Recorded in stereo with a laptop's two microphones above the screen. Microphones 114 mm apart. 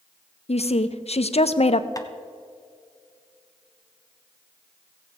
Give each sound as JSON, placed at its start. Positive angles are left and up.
{"t": 0.5, "sound": "a woman speaking", "side_deg": 65, "distance_m": 0.6}
{"t": 2.0, "sound": "tapping", "side_deg": 30, "distance_m": 0.9}